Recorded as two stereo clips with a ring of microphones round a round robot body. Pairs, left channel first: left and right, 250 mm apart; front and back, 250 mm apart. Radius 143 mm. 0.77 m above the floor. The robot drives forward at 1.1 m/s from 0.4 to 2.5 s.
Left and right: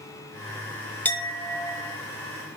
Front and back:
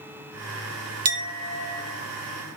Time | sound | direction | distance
1.1 | a clink | 170° left | 0.6 m